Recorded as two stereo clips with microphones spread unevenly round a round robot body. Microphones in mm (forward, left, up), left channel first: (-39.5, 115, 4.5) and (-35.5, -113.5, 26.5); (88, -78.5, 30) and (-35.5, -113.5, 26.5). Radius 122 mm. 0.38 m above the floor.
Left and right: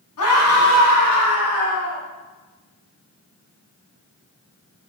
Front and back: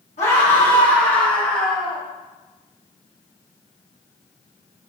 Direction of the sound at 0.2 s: 70° left.